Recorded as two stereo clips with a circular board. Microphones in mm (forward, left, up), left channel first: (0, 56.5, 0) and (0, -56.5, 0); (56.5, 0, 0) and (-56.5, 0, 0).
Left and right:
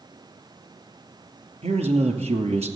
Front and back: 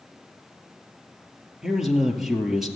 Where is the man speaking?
95° right, 2.5 m.